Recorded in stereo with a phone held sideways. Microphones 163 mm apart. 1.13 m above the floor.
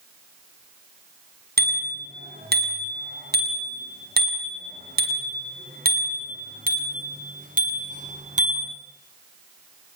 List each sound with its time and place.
1.6 s a bicycle bell: 75° right (ahead or behind), 7 m; by 8.7 s 50° right (ahead or behind), 7.5 m